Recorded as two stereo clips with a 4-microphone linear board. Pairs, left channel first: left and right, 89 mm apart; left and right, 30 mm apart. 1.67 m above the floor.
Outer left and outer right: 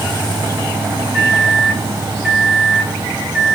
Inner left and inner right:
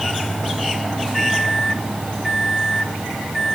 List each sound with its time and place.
1.1 s a microwave: 10° right (ahead or behind), 1.2 m